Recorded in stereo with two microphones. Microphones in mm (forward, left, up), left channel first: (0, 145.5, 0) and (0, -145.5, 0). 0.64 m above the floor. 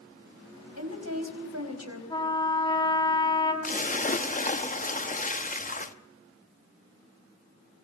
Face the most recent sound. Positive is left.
turn(degrees=25)  # may be behind; listen again after turning